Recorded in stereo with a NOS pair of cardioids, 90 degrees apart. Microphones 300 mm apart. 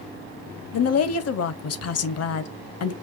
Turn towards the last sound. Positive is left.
turn(degrees=55)